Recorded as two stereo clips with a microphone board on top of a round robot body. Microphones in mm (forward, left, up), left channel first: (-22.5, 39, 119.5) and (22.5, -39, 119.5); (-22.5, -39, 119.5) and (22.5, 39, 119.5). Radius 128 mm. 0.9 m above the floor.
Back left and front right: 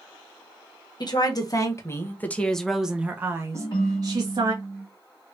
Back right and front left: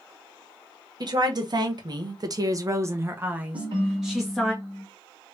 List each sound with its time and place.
1.0 s a woman speaking: 90° left, 1.3 m; by 4.5 s 30° right, 1.4 m
3.5 s a ringtone: 85° left, 1.2 m